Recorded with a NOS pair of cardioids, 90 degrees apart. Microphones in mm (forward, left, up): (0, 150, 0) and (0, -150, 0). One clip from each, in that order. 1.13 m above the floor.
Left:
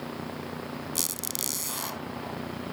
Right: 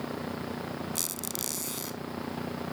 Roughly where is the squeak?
Ahead left.